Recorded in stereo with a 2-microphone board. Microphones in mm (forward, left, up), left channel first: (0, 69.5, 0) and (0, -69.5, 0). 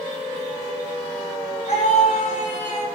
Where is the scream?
60° left (ahead or behind), 6.5 m.